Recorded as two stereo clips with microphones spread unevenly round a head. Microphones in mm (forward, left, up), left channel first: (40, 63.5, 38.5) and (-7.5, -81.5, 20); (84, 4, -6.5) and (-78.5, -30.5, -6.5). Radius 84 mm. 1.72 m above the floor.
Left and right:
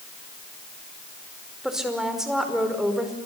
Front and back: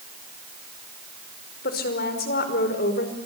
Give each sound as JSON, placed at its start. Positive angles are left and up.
{"t": 1.6, "sound": "a woman speaking", "azimuth_deg": -20, "distance_m": 5.0}